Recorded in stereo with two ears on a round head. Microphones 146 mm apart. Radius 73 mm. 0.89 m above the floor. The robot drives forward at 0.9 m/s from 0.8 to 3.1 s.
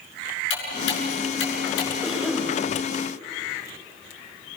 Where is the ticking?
85° left, 8 m; by 1.9 s 80° left, 8 m.